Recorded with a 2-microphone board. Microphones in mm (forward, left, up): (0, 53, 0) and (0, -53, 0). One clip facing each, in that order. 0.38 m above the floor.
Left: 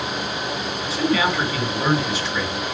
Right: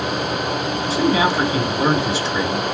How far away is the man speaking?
About 3 m.